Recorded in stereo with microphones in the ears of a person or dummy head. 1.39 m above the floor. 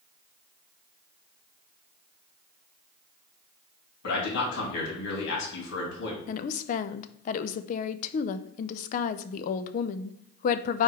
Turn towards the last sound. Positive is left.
turn(degrees=45)  # may be behind; listen again after turning